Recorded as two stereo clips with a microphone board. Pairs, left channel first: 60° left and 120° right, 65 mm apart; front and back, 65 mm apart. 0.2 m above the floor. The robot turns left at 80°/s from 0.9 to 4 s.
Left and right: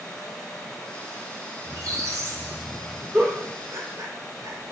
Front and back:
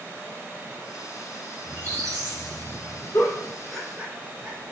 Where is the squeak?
115° right, 0.9 m; by 3.0 s 130° left, 0.9 m.